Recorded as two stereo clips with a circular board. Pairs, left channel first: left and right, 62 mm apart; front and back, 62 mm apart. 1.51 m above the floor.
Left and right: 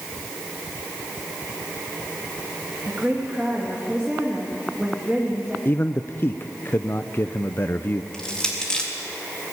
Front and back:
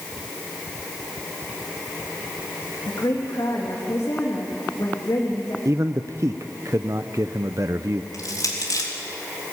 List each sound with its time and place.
2.9 s a woman speaking: 10° right, 2.5 m
5.7 s a man speaking: 145° left, 0.6 m
8.1 s crushing: 15° left, 3.5 m